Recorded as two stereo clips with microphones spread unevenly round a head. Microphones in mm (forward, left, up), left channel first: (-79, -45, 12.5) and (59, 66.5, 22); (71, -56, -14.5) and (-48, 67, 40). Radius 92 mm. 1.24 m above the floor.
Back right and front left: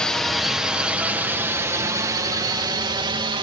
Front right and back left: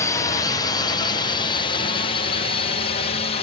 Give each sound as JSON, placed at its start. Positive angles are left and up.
{"t": 0.0, "sound": "a drone", "azimuth_deg": -60}